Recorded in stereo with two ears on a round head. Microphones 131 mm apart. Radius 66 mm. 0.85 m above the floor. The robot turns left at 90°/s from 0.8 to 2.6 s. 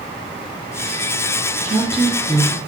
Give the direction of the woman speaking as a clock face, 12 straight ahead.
5 o'clock.